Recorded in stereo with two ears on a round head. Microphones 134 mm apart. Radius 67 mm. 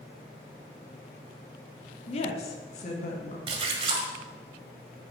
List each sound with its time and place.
2.1 s a woman speaking: 40° left (ahead or behind), 1.2 m; by 3.4 s 50° left (ahead or behind), 2.5 m
3.5 s a splash: 40° right (ahead or behind), 1.5 m